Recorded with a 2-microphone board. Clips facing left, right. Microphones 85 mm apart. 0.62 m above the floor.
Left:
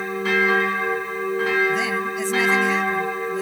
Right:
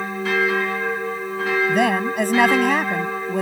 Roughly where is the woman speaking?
Right.